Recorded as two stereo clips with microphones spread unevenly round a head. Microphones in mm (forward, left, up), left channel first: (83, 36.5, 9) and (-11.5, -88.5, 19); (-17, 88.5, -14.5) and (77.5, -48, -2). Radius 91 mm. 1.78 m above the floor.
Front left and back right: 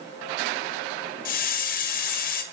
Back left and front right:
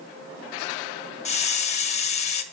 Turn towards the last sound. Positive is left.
turn(degrees=80)